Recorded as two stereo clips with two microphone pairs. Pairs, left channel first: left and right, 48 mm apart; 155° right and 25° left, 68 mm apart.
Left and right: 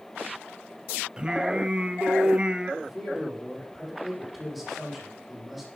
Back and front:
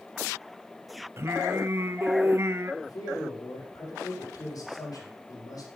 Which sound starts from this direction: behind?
A man speaking, at 2.8 s.